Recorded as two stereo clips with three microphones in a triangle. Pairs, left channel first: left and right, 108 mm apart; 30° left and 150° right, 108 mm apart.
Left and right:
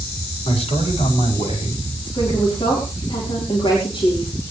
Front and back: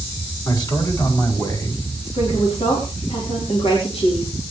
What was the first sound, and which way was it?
A man speaking, 75° left.